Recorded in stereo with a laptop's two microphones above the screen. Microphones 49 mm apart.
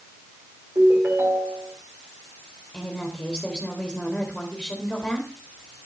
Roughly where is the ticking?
No ticking in this recording.